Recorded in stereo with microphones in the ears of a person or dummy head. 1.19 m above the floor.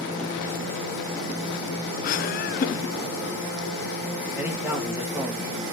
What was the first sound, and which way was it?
Laughter, 45° left (ahead or behind).